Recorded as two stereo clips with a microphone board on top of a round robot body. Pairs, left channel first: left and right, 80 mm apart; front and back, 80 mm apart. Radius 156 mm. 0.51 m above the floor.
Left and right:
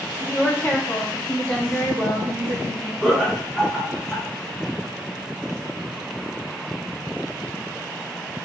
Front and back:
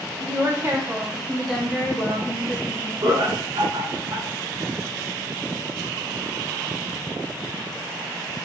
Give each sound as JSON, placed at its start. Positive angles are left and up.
{"t": 0.2, "sound": "a woman speaking", "azimuth_deg": 155, "distance_m": 1.6}
{"t": 3.0, "sound": "laughter", "azimuth_deg": 180, "distance_m": 1.2}